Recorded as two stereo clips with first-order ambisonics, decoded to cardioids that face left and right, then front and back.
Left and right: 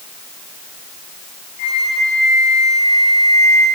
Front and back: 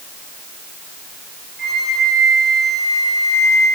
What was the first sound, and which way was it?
A flute, 110° left.